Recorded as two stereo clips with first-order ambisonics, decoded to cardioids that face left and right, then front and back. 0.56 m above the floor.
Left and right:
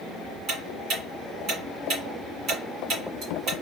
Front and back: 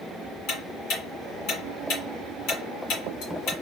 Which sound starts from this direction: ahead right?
Ticking, at 0.5 s.